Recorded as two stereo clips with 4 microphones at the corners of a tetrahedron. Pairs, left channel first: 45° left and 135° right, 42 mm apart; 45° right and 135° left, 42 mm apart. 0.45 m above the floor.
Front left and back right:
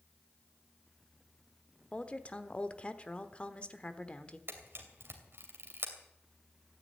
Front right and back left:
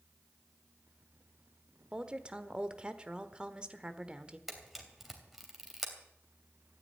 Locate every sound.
1.9 s a woman speaking: 85° left, 1.1 m
4.5 s a camera shutter: 140° right, 2.5 m